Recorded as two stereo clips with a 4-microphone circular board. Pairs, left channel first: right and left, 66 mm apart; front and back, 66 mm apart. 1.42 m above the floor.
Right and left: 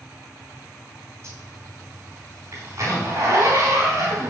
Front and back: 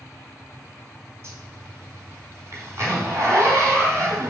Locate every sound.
1.2 s a zipper: 135° left, 3.5 m